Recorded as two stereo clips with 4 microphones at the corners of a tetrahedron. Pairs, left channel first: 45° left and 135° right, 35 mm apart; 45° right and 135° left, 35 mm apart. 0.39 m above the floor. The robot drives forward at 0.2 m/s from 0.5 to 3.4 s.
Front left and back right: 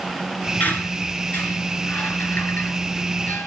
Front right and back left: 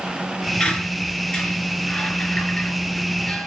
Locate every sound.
0.6 s a squeak: 20° left, 3.5 m; by 3.5 s 25° left, 3 m